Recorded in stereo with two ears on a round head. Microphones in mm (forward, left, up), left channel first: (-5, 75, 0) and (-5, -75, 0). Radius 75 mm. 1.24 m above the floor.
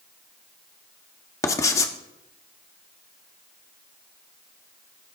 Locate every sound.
1.4 s writing: 20° left (ahead or behind), 1.2 m